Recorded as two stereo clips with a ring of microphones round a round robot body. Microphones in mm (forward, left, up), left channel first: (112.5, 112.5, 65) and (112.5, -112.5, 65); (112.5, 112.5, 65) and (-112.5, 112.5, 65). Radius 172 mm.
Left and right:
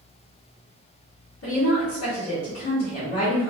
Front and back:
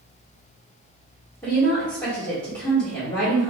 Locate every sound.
1.4 s a woman speaking: 70° left, 1.9 m